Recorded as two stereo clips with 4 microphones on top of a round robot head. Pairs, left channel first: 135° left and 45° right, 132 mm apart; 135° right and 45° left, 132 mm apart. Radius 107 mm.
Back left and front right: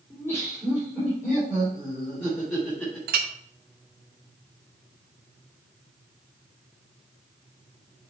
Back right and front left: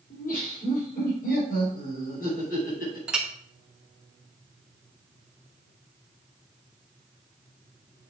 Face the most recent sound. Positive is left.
turn(degrees=-35)